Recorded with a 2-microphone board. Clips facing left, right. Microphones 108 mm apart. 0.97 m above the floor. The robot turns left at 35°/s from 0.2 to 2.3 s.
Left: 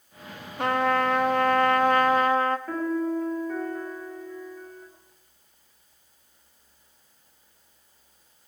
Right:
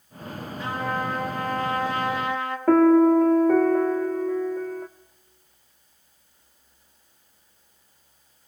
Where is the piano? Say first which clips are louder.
Right 12 dB; 75° right (ahead or behind), 1.4 m.